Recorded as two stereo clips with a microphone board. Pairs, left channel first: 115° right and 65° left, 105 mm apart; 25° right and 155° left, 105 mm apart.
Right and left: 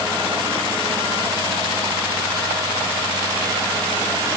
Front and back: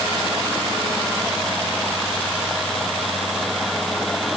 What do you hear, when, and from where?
Only background noise.